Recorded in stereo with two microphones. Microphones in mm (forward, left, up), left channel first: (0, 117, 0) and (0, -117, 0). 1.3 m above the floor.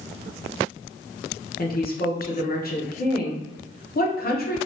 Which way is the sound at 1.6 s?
40° left (ahead or behind).